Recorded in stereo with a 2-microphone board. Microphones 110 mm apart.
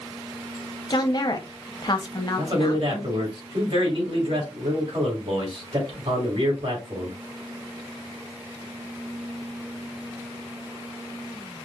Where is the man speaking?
60° right (ahead or behind), 2.5 m.